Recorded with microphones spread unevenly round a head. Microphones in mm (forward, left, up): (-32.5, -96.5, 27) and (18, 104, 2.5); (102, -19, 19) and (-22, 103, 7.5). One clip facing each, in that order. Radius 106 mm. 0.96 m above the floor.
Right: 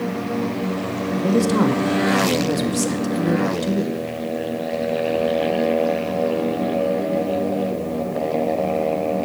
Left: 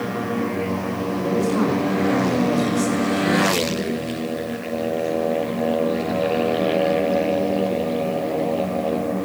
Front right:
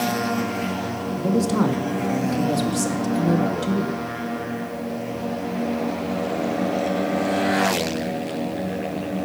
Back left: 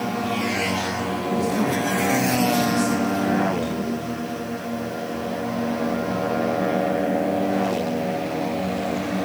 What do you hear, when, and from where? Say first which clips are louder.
1.1 s a man speaking: right 3 dB, front right 3 dB; 70° right, 2 m